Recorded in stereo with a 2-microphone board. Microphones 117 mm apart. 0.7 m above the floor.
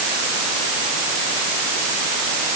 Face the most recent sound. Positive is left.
No sound to turn to.